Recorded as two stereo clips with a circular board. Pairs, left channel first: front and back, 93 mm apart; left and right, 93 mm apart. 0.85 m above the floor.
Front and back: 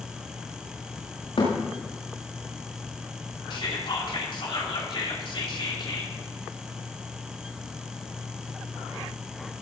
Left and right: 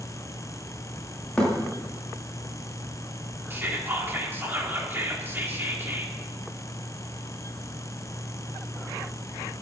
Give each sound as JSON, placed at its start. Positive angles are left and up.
{"t": 1.4, "sound": "a thud", "azimuth_deg": 10, "distance_m": 8.5}
{"t": 3.5, "sound": "whispering", "azimuth_deg": -25, "distance_m": 2.5}